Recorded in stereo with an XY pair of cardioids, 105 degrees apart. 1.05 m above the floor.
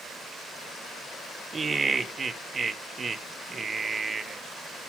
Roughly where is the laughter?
Ahead right.